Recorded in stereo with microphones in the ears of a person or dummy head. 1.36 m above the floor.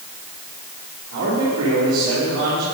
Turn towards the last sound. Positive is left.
turn(degrees=-75)  # may be behind; listen again after turning